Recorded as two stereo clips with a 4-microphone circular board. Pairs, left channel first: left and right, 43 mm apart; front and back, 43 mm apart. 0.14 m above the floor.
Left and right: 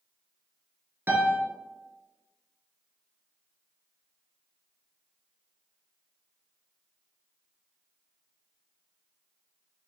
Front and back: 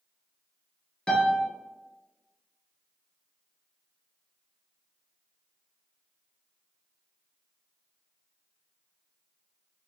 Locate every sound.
1.1 s a piano: 70° right, 0.7 m